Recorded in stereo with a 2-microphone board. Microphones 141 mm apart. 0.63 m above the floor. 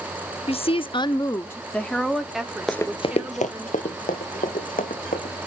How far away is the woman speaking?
About 0.7 m.